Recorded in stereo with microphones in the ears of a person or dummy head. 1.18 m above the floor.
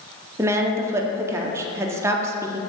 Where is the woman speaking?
15° right (ahead or behind), 0.6 m.